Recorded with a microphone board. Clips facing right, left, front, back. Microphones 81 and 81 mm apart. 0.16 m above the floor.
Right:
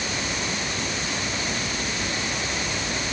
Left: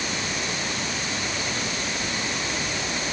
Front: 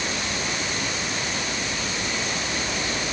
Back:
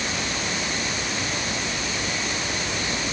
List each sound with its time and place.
Only background noise.